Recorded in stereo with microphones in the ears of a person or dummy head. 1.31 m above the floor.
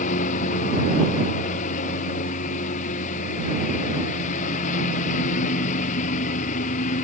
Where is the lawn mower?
40° left (ahead or behind).